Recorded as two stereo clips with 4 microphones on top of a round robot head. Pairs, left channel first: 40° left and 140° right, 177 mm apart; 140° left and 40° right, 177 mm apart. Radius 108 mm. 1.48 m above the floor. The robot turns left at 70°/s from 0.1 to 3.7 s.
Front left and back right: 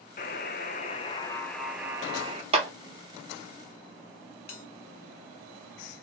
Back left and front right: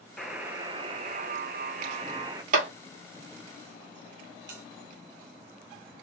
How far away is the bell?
About 1.8 m.